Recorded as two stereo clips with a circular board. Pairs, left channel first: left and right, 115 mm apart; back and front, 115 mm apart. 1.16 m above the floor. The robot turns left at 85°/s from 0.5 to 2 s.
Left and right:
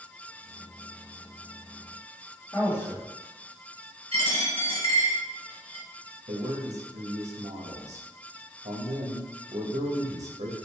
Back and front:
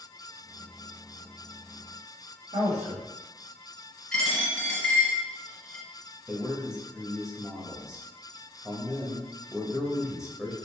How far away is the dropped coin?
About 1.9 m.